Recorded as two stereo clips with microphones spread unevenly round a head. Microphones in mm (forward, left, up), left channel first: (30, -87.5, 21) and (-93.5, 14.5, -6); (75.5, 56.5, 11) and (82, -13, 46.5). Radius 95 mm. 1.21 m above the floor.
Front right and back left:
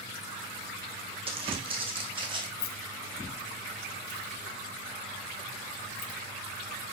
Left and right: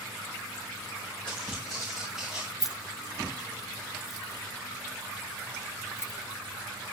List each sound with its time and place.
1.3 s footsteps: 165° right, 2.5 m; by 2.5 s 160° right, 3 m
2.6 s keys jangling: 10° right, 0.8 m